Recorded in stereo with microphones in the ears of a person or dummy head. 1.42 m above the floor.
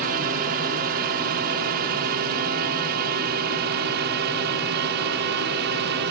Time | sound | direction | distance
0.0 | a drone | 45° right (ahead or behind) | ?